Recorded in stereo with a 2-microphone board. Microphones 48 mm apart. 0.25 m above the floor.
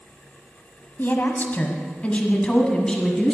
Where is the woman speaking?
45° left (ahead or behind), 1.3 m; by 3.3 s 10° left (ahead or behind), 1.7 m.